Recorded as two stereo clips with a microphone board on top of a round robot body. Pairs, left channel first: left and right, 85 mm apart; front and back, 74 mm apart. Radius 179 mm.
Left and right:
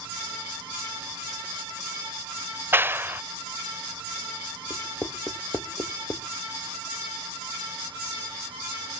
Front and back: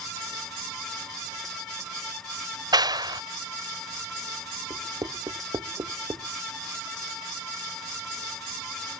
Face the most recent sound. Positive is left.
turn(degrees=150)